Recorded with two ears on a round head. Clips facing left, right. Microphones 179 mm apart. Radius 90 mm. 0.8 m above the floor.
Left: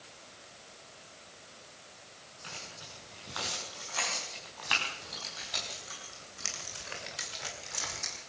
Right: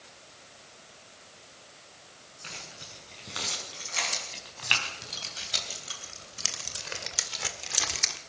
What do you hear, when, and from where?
2.4 s keys jangling: 30° right (ahead or behind), 6.5 m; by 8.2 s 80° right, 1.5 m